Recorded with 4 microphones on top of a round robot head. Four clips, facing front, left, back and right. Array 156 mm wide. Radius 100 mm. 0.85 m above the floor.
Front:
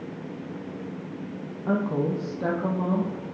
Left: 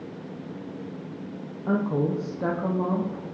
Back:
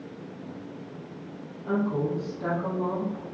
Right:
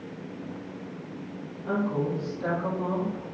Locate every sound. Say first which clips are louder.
1.7 s a woman speaking: left 3 dB, front 1 dB; 45° left, 1.2 m; by 3.2 s 65° left, 1.9 m